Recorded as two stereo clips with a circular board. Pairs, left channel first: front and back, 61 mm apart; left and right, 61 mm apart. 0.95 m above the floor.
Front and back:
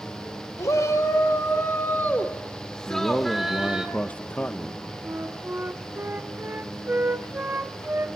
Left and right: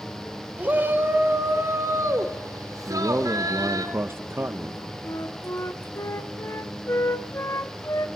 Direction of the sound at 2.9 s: 60° right.